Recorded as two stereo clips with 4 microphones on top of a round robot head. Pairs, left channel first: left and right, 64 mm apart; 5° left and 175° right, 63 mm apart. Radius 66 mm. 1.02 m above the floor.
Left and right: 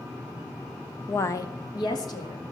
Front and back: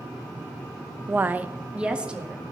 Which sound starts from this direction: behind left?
A woman speaking, at 1.1 s.